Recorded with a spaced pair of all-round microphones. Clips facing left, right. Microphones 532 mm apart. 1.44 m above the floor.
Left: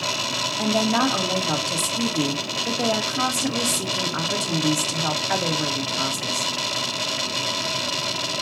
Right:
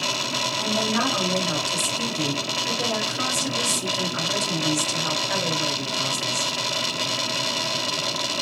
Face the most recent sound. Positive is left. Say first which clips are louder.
# left 4 dB
turn(degrees=70)  # may be behind; listen again after turning